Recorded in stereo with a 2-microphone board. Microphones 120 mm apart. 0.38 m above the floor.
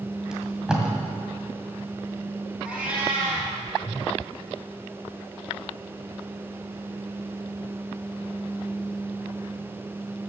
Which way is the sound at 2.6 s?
10° right (ahead or behind).